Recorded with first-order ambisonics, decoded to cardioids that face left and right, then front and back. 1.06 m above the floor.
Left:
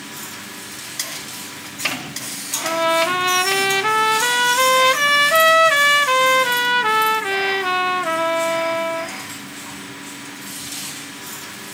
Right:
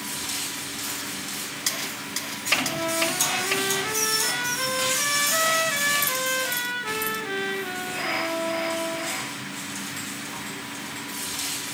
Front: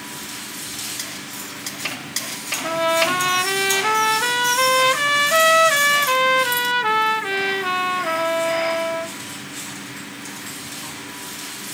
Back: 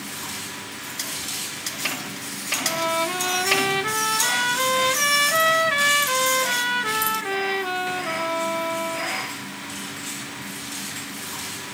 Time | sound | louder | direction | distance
2.6 | a trumpet | left 8 dB, front 6 dB | 60° left | 1.0 m